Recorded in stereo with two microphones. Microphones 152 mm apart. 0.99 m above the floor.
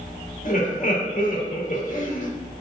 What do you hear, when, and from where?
0.5 s laughter: 55° left (ahead or behind), 2 m